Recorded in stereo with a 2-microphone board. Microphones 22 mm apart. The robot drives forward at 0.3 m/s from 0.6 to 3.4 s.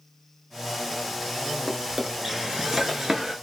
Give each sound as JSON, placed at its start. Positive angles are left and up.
{"t": 1.7, "sound": "a drawer", "side_deg": -15, "distance_m": 0.9}